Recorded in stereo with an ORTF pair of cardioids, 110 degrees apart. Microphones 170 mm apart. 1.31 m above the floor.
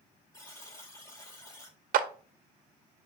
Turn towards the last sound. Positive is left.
turn(degrees=-60)